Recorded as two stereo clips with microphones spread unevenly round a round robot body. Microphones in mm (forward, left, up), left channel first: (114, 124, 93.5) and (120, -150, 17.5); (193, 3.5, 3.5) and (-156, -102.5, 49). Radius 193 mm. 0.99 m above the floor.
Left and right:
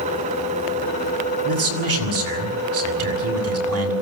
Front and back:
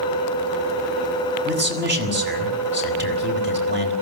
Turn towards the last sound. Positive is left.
turn(degrees=-100)